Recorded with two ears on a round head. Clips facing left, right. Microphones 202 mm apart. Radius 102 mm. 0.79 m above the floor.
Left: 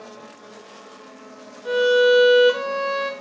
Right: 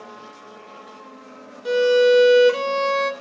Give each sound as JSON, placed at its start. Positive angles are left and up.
{"t": 1.6, "sound": "a violin", "side_deg": -35, "distance_m": 1.0}